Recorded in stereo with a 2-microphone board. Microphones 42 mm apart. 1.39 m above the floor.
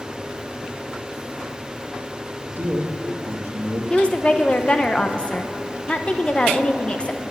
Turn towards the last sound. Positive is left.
turn(degrees=30)  # may be behind; listen again after turning